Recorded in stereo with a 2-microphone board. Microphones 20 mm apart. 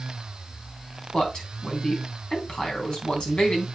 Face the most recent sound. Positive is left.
turn(degrees=60)  # may be behind; listen again after turning